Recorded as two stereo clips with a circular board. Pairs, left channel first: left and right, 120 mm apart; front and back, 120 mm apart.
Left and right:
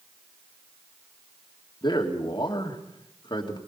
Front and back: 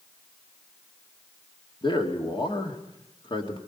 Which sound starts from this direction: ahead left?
A man speaking, at 1.8 s.